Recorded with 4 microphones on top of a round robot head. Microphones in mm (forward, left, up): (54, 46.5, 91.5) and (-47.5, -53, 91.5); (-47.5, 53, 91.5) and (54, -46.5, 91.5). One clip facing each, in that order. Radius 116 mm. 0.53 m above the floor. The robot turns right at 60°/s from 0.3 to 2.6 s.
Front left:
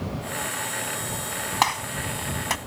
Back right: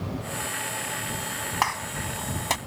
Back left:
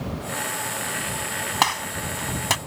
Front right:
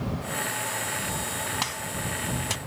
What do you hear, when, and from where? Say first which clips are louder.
1.6 s a gunshot: front left 4 dB, back left 8 dB; 110° left; by 2.6 s 165° left